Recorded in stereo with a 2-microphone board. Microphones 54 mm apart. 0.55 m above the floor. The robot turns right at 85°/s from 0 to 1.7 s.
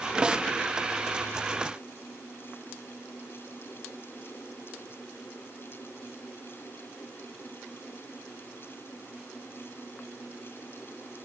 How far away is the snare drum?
About 0.8 m.